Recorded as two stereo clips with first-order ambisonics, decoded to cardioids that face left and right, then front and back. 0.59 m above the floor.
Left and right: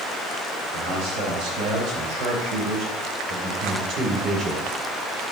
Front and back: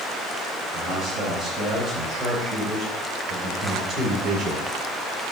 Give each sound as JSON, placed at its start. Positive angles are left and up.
{"t": 0.7, "sound": "a man speaking", "azimuth_deg": -110, "distance_m": 3.5}